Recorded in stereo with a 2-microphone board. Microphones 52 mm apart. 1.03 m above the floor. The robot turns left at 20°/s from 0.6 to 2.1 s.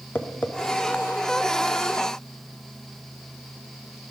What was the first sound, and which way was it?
Tapping, 35° left (ahead or behind).